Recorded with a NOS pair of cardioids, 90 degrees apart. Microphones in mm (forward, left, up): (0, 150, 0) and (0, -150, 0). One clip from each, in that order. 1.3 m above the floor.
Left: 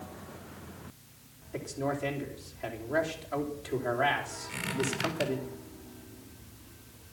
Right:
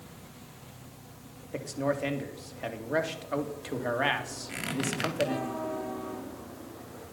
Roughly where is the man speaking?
Ahead right.